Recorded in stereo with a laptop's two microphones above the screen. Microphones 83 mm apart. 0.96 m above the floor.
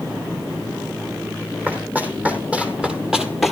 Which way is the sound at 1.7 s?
20° right (ahead or behind).